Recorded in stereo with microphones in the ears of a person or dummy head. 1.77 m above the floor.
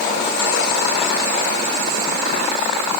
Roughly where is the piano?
I don't hear a piano.